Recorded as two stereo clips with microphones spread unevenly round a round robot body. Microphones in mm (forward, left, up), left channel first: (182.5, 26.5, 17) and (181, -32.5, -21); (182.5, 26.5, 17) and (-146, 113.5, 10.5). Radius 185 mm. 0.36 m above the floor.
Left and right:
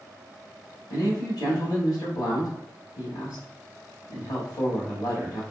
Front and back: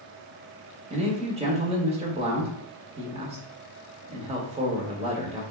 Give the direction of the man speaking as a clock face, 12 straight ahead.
8 o'clock.